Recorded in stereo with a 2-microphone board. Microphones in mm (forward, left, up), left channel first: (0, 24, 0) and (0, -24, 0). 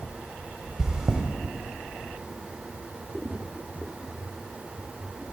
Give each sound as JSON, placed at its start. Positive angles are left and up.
{"t": 0.8, "sound": "chewing", "side_deg": -15, "distance_m": 0.6}